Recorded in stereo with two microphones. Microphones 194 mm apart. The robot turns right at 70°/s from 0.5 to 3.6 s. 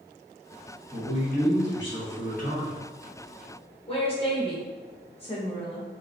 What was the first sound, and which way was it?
A man speaking, 25° left.